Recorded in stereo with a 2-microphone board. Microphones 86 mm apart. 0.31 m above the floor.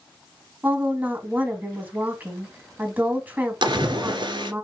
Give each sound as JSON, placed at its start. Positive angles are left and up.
{"t": 0.6, "sound": "a woman speaking", "side_deg": -20, "distance_m": 3.0}
{"t": 3.6, "sound": "a splash", "side_deg": -60, "distance_m": 1.6}